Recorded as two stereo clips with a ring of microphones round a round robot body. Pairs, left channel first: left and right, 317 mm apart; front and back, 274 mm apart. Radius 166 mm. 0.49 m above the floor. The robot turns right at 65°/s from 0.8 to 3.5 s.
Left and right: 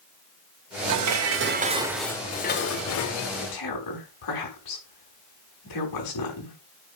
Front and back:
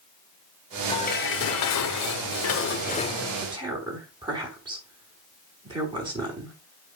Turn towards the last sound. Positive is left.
turn(degrees=105)